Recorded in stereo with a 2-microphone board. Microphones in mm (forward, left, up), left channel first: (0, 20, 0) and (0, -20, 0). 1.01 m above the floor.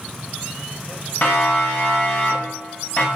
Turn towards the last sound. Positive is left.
turn(degrees=45)  # may be behind; listen again after turning